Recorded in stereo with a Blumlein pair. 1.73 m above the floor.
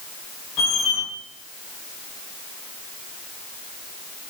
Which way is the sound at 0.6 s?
20° left.